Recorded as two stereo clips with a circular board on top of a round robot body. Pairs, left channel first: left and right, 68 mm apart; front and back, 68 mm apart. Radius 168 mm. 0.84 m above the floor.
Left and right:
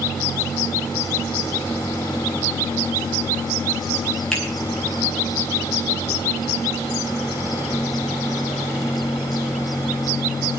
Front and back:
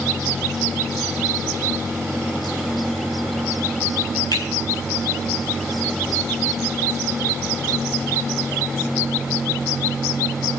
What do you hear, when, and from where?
4.3 s a finger snap: 10° left, 9.5 m